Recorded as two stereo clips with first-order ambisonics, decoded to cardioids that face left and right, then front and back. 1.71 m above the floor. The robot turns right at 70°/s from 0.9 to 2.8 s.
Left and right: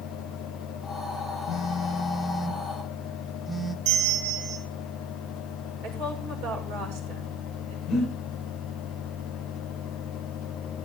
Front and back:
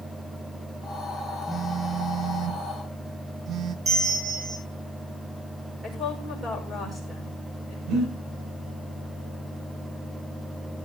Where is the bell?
115° right, 5 m.